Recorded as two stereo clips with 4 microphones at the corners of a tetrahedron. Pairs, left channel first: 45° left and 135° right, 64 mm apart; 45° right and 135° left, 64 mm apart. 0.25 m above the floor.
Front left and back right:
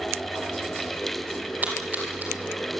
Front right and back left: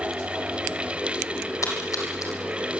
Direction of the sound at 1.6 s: 75° right.